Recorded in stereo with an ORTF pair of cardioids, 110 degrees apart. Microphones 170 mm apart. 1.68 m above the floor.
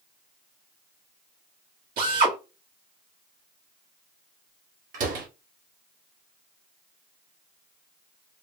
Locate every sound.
2.0 s a drill: 65° right, 2.5 m
4.9 s a door slam: 55° right, 1.8 m